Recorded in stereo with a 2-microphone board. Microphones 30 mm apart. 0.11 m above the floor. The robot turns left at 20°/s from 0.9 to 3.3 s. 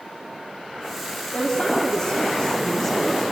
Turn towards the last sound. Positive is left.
turn(degrees=20)